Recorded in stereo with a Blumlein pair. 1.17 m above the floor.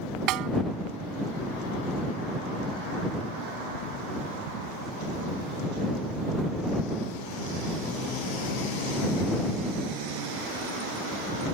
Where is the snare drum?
40° right.